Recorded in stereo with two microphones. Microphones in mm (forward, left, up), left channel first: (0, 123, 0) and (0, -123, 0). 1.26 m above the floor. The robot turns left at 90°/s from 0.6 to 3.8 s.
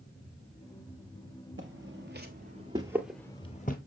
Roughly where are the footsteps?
Right.